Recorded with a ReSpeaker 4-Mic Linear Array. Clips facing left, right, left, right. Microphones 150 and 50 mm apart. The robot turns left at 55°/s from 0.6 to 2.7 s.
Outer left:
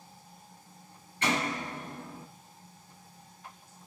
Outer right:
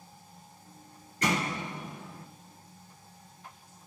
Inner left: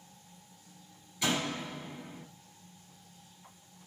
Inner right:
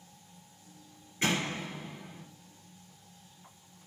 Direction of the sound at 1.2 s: 130° right.